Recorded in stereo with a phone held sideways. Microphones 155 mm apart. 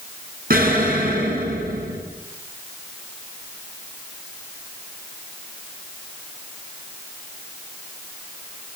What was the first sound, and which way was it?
An explosion, 70° right (ahead or behind).